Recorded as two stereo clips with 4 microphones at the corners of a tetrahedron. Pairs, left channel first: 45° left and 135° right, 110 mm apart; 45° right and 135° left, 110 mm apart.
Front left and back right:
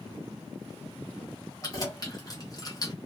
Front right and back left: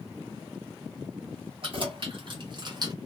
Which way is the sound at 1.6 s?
100° left.